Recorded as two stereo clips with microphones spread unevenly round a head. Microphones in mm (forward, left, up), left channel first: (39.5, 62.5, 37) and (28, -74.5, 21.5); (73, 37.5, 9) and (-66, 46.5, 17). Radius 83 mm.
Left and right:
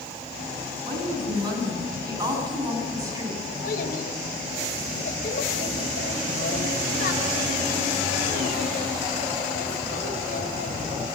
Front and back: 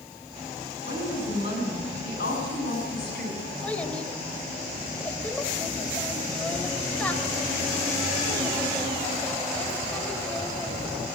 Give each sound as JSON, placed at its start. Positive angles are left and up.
{"t": 0.9, "sound": "a woman speaking", "azimuth_deg": -40, "distance_m": 8.5}
{"t": 3.6, "sound": "a child speaking", "azimuth_deg": 75, "distance_m": 3.0}